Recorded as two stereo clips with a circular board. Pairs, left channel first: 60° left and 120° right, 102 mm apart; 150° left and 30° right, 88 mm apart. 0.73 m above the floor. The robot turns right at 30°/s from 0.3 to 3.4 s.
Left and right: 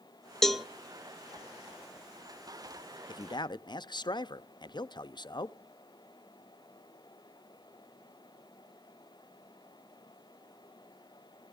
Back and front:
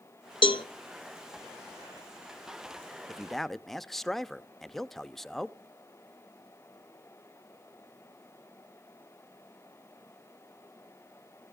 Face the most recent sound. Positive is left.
turn(degrees=65)